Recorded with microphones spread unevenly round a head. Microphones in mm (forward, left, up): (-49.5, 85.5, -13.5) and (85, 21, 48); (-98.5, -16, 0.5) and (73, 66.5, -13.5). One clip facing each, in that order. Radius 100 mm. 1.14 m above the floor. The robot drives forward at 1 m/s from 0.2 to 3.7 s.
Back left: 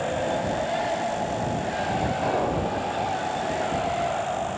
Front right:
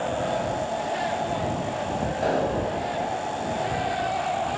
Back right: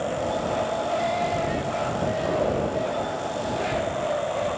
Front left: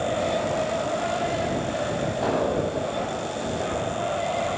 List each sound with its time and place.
2.2 s an explosion: 10° left, 5 m